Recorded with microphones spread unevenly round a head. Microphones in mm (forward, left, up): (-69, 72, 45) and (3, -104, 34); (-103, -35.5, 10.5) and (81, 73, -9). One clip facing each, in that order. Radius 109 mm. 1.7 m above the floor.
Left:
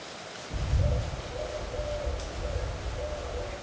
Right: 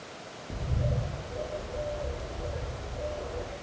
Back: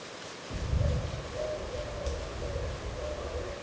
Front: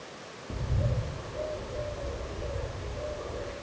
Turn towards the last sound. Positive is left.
turn(degrees=-20)